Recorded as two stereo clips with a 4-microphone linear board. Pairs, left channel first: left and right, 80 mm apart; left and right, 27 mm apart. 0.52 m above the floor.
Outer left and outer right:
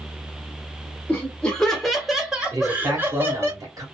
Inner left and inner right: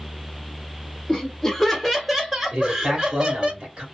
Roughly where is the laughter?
Centre.